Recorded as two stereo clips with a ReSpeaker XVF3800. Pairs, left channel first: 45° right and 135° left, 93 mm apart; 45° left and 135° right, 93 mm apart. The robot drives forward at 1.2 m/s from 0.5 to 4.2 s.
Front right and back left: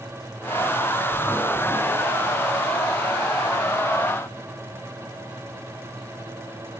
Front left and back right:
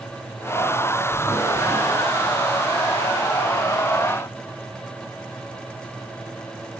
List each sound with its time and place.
Only background noise.